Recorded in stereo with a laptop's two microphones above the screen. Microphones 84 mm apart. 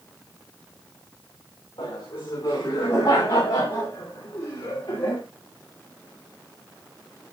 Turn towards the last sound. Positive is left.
turn(degrees=65)  # may be behind; listen again after turning